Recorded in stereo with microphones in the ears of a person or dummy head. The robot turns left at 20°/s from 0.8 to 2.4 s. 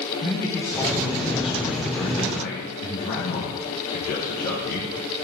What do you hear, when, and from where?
0.2 s a man speaking: 160° left, 1.0 m; by 4.9 s 130° left, 1.0 m